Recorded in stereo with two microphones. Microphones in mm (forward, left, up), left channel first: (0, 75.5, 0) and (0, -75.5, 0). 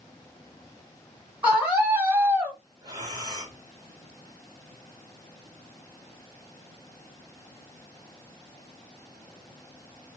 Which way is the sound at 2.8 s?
25° right (ahead or behind).